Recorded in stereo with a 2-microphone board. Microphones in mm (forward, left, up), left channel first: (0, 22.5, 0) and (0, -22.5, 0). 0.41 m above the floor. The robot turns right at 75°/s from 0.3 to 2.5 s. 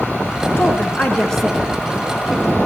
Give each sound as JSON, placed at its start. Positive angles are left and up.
{"t": 0.6, "sound": "a woman speaking", "side_deg": 65, "distance_m": 4.0}